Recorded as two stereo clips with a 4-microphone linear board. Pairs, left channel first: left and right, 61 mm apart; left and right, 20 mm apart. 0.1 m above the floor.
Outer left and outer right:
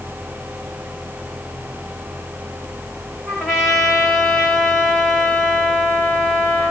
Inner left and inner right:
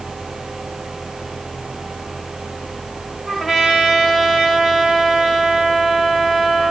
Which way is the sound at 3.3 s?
5° right (ahead or behind).